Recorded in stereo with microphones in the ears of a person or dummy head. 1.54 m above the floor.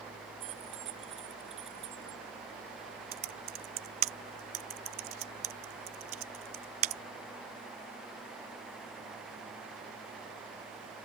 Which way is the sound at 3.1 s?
35° right (ahead or behind).